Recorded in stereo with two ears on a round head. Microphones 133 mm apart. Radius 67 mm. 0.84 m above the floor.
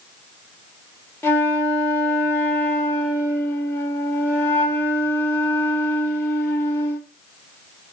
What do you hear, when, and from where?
1.2 s a flute: 15° left (ahead or behind), 0.6 m